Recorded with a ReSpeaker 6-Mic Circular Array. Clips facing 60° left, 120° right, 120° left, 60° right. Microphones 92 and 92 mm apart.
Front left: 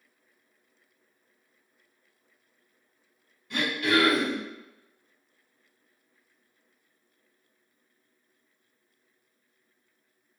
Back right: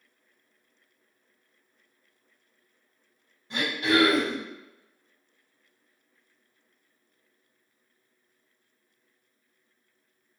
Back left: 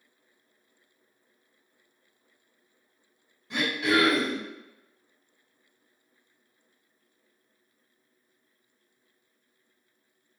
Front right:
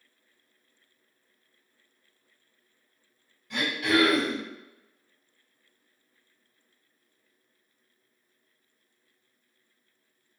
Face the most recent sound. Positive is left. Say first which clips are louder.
# back right 1 dB, even
turn(degrees=-175)